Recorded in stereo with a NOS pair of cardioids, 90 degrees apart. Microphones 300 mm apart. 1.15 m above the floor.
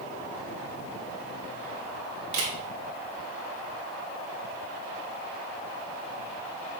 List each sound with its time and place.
2.3 s a camera shutter: 60° right, 3 m